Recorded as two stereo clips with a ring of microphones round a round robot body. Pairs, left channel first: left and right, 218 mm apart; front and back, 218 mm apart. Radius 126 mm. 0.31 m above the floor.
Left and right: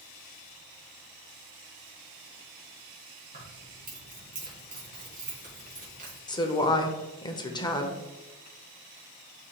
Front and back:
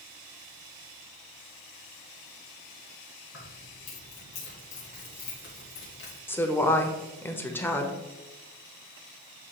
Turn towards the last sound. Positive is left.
turn(degrees=65)